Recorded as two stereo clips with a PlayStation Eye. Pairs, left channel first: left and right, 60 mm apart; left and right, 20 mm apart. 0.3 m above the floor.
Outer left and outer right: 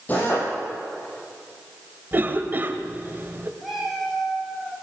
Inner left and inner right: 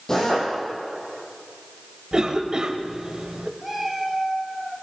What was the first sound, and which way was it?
A drill, 30° left (ahead or behind).